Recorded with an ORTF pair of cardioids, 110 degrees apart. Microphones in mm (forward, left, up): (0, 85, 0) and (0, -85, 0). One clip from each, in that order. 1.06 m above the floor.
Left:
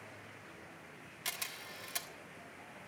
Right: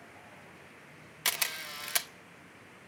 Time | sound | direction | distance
1.2 | a camera shutter | 50° right | 0.7 m